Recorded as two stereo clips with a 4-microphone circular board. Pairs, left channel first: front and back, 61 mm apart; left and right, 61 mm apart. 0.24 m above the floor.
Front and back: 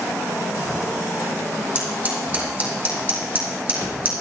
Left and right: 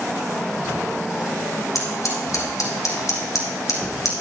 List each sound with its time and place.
1.8 s scissors: 120° left, 2.5 m